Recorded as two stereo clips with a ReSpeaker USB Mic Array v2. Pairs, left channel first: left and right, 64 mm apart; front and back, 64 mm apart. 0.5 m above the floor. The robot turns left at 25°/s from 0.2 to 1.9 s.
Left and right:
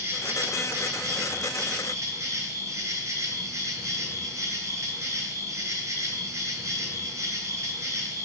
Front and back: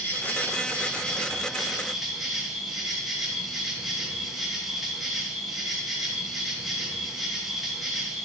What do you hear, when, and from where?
0.0 s an insect: 50° right, 2.5 m; by 8.2 s 90° right, 2.5 m